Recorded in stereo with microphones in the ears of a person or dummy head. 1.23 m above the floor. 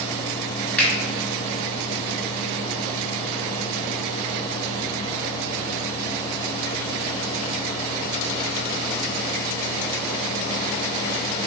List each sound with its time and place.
0.8 s a finger snap: 5° left (ahead or behind), 0.9 m